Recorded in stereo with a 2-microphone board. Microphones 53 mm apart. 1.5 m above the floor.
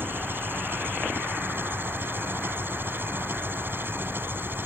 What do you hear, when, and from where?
0.0 s an engine running: 40° right (ahead or behind)